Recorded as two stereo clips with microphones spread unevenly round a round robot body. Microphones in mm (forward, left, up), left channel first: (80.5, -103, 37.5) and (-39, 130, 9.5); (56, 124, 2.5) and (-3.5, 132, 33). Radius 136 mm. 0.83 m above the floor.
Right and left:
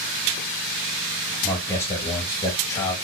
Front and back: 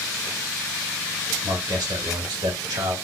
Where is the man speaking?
145° right, 1.3 m.